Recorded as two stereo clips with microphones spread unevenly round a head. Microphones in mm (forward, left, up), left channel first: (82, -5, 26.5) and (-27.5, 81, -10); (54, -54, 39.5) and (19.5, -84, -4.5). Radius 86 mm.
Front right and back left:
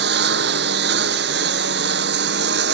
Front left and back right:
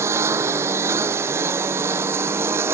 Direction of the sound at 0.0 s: 165° left.